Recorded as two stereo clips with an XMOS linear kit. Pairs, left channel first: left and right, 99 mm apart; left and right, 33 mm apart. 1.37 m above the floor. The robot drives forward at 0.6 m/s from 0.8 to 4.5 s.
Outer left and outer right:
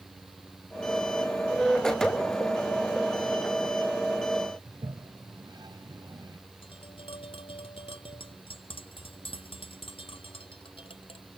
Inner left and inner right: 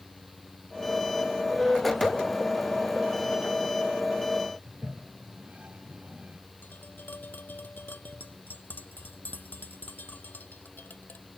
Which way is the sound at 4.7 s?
45° right (ahead or behind).